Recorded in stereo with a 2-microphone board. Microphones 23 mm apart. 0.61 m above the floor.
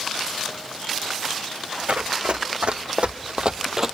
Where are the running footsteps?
65° right (ahead or behind), 2.0 m; by 4.0 s 20° right (ahead or behind), 0.8 m.